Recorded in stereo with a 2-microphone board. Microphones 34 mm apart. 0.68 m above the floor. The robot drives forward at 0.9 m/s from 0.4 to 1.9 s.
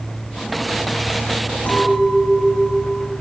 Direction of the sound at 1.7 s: 65° left (ahead or behind).